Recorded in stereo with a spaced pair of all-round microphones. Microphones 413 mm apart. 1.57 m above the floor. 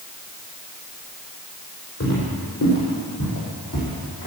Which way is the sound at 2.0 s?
40° left (ahead or behind).